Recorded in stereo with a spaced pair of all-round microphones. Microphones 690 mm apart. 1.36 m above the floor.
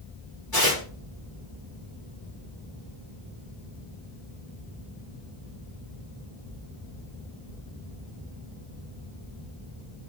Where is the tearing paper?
30° left (ahead or behind), 4 m.